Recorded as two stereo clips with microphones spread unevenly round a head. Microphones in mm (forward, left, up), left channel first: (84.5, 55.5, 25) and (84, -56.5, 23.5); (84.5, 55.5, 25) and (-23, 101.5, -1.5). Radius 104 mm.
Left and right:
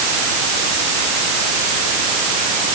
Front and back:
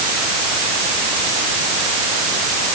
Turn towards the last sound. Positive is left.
No sound to turn to.